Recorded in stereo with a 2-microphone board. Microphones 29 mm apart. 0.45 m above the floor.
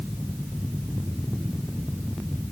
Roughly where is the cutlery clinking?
No cutlery clinking in this recording.